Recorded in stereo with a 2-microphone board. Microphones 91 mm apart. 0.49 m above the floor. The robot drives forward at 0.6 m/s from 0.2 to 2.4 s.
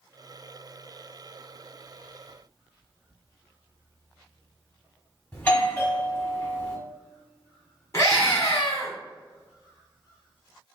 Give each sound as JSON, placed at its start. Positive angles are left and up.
{"t": 5.3, "sound": "a doorbell", "side_deg": 20, "distance_m": 1.3}
{"t": 7.9, "sound": "a scream", "side_deg": 30, "distance_m": 1.5}